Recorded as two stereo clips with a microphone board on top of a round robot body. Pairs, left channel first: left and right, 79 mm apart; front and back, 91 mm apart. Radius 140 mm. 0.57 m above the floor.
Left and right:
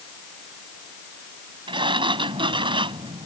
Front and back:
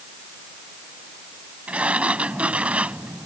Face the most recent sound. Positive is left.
turn(degrees=-100)